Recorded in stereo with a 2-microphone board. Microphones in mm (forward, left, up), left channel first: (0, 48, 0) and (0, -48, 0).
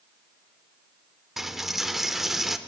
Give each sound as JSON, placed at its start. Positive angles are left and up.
{"t": 1.4, "sound": "a dropped coin", "side_deg": -5, "distance_m": 0.5}